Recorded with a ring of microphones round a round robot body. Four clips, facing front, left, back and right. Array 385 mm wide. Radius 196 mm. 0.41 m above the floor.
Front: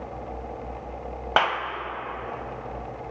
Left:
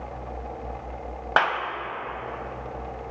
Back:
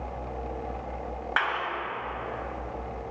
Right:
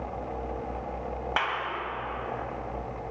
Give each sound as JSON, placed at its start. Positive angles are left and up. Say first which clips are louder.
{"t": 1.4, "sound": "a clap", "louder": "left 8 dB, front 6 dB", "azimuth_deg": 35, "distance_m": 2.5}